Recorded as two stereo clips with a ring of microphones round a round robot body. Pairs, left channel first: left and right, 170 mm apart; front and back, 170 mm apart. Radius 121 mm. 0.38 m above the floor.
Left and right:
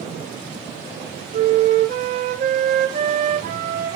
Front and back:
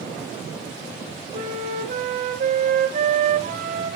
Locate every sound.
1.3 s a flute: 135° right, 1.0 m